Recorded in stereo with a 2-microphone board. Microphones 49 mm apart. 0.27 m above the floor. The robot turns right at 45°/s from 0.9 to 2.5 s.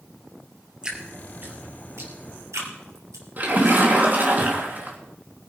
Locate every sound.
0.8 s dripping: 15° right (ahead or behind), 3 m; by 3.8 s 80° right, 3 m
3.4 s a splash: 35° right (ahead or behind), 3 m